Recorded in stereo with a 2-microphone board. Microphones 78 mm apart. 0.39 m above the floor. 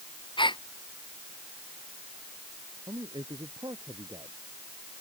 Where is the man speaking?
60° right (ahead or behind).